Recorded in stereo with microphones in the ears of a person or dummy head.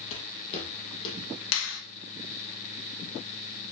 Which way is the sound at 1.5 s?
80° left.